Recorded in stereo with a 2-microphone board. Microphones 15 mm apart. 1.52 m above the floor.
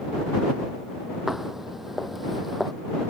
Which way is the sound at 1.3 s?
30° right (ahead or behind).